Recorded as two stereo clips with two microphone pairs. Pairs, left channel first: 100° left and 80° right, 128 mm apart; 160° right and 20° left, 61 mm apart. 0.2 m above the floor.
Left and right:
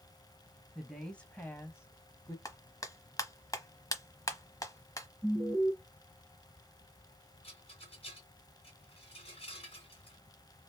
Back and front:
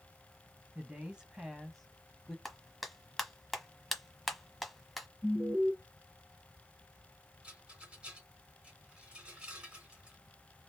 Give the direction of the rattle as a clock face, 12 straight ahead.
9 o'clock.